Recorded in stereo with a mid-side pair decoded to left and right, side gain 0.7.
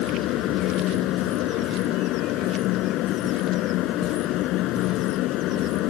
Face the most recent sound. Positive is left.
turn(degrees=60)